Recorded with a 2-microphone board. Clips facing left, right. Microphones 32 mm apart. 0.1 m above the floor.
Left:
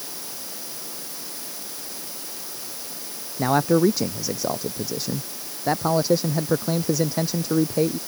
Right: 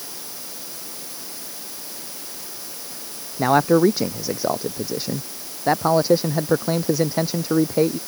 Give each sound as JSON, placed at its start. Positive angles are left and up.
{"t": 3.4, "sound": "a man speaking", "side_deg": -20}